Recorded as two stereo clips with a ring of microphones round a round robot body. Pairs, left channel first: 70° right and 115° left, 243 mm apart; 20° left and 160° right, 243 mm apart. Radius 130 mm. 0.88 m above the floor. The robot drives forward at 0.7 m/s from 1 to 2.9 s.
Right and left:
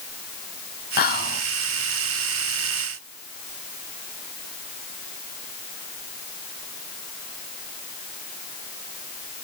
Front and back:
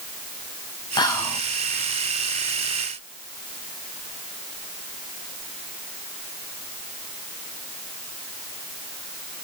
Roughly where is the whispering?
Ahead right.